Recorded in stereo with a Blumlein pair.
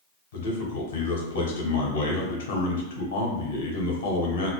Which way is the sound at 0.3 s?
60° left.